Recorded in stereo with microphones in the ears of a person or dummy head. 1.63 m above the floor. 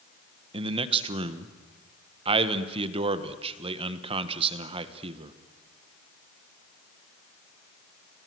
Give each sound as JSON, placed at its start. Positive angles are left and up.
{"t": 0.5, "sound": "a man speaking", "side_deg": -35, "distance_m": 1.6}